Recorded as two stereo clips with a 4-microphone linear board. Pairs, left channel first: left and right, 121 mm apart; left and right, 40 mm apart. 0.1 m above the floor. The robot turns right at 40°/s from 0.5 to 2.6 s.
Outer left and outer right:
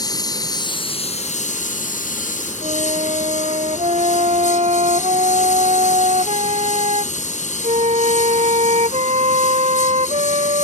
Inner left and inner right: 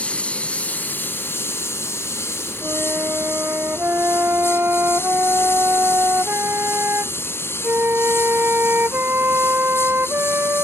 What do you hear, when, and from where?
0.0 s a lawn mower: 30° left; by 10.6 s 110° left
2.6 s a flute: 55° right (ahead or behind)